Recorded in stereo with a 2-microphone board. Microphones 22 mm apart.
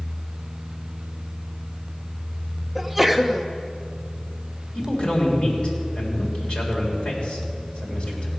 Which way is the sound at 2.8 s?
5° right (ahead or behind).